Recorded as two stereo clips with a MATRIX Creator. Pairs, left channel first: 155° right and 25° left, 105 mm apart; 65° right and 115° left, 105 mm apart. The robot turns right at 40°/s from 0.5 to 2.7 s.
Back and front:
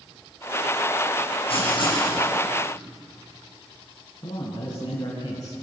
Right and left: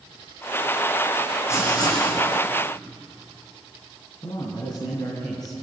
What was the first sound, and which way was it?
Writing, 130° right.